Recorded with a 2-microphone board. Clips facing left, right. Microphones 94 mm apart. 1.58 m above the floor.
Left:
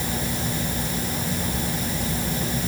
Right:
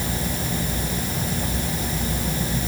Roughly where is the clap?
No clap in this recording.